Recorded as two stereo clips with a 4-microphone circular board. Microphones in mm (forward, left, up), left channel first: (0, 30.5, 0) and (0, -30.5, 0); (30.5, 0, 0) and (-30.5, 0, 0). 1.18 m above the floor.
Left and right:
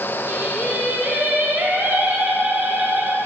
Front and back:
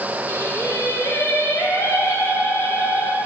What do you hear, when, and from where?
0.3 s singing: 35° right, 1.2 m